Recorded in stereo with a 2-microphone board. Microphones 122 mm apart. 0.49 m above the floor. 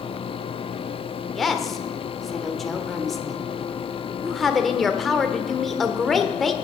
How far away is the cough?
I don't hear a cough.